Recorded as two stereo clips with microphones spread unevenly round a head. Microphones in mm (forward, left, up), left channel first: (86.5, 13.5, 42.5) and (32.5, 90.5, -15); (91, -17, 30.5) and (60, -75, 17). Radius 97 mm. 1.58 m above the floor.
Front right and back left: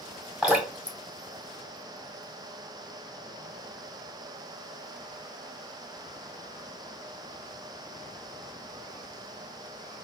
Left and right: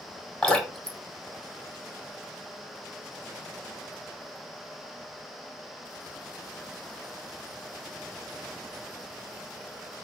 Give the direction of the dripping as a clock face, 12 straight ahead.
12 o'clock.